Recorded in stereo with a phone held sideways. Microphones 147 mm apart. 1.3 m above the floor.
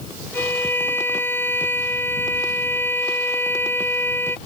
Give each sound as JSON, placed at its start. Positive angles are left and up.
{"t": 0.3, "sound": "a violin", "side_deg": 15}